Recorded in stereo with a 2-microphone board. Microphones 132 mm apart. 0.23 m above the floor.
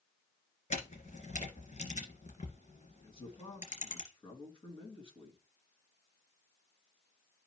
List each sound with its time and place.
0.7 s a camera shutter: 65° left (ahead or behind), 2.5 m
3.0 s a man speaking: 40° left (ahead or behind), 2.5 m